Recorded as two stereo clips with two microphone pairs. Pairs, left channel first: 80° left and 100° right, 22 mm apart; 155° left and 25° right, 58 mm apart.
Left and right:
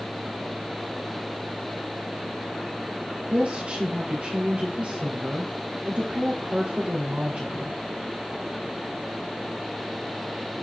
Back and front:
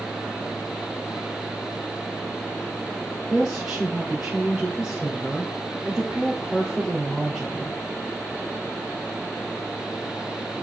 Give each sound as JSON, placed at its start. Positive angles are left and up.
{"t": 3.3, "sound": "a woman speaking", "azimuth_deg": -100, "distance_m": 2.5}